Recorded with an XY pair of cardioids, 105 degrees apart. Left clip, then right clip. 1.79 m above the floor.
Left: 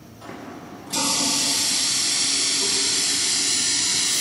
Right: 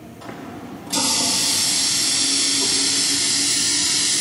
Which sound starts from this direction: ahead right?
A running tap, at 0.2 s.